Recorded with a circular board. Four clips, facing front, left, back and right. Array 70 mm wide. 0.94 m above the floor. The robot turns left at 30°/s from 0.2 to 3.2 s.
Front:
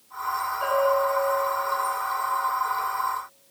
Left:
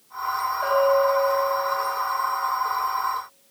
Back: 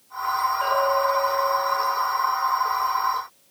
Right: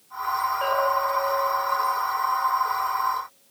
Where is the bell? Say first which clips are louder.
Left 6 dB, front 1 dB; 85° right, 9.5 m; by 1.5 s 110° right, 9.5 m.